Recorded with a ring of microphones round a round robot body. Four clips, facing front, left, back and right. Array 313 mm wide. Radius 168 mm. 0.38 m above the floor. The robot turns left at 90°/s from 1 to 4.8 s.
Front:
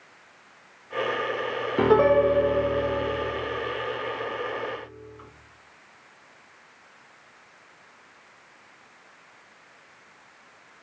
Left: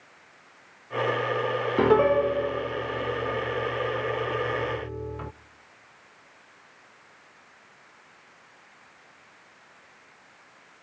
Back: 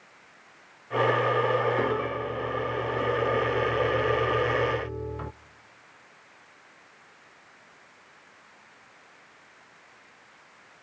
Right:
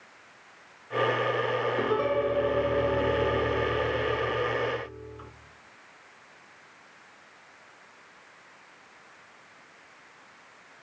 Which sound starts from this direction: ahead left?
A piano, at 1.8 s.